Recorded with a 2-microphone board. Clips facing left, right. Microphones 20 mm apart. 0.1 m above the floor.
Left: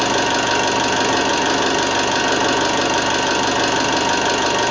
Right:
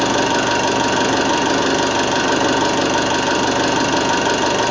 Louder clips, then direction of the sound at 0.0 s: Right 1 dB; centre (ahead or behind).